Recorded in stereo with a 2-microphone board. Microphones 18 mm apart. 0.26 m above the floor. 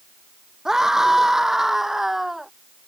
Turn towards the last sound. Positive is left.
turn(degrees=-20)  # may be behind; listen again after turning